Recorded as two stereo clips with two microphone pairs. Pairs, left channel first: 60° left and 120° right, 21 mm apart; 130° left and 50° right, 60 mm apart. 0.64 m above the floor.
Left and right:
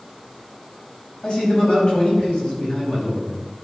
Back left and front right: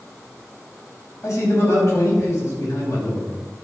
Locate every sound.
1.2 s a man speaking: 90° left, 5 m